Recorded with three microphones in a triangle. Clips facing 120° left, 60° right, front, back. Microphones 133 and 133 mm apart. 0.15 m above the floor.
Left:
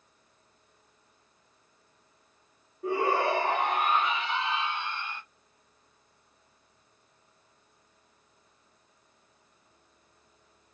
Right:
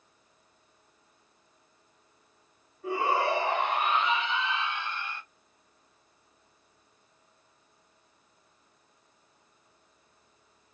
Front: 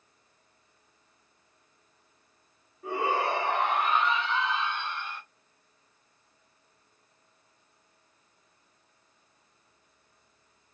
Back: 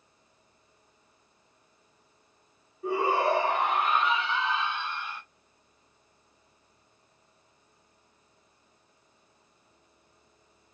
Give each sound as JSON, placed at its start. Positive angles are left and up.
{"t": 2.8, "sound": "a shout", "azimuth_deg": 95, "distance_m": 2.0}